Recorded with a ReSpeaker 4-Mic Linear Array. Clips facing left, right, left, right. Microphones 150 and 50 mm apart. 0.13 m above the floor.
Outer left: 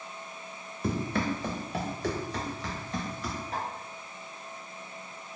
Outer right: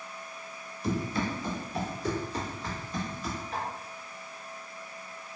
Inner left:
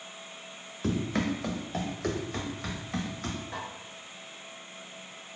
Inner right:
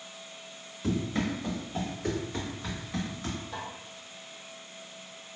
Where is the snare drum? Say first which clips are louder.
Outer left 1 dB, inner left 1 dB; 40° left (ahead or behind), 1.4 m.